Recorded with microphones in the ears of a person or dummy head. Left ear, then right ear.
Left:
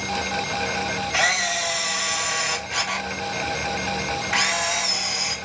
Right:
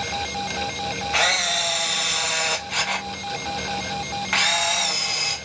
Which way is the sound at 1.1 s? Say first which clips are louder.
Right 1 dB; 20° right (ahead or behind).